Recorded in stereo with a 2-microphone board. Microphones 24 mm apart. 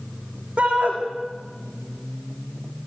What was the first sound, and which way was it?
A shout, 55° right (ahead or behind).